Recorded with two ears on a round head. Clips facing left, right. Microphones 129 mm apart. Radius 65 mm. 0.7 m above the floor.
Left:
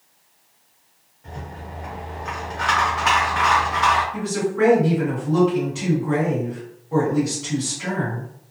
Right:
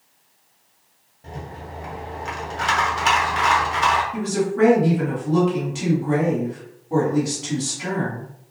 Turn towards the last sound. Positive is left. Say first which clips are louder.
# right 1 dB
turn(degrees=-60)  # may be behind; listen again after turning